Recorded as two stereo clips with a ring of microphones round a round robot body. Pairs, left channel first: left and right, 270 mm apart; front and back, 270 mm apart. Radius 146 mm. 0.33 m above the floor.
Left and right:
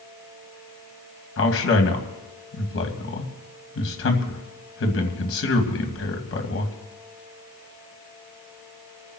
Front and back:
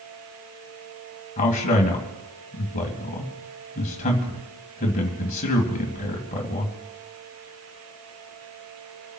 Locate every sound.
1.4 s a man speaking: 60° left, 2.5 m